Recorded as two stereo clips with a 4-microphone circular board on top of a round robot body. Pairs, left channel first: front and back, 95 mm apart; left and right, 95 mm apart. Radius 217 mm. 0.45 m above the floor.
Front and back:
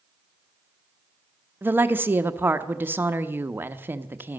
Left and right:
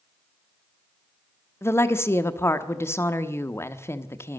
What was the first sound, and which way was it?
A woman speaking, 130° left.